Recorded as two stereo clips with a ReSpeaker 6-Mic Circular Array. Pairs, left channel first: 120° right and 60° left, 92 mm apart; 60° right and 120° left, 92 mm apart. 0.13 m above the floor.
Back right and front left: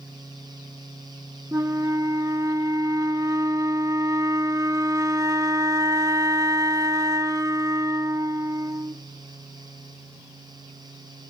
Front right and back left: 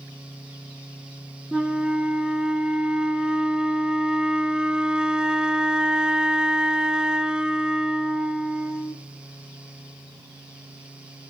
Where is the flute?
45° left, 1.0 m.